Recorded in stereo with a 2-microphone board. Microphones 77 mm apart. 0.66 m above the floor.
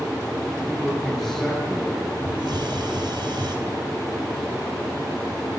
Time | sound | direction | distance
0.7 | a man speaking | centre (ahead or behind) | 9.5 m
2.2 | a hiss | 80° right | 4 m